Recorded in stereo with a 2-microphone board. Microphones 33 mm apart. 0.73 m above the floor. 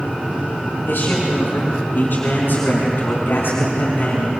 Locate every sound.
0.9 s a man speaking: 85° left, 7 m; by 4.3 s 70° left (ahead or behind), 5.5 m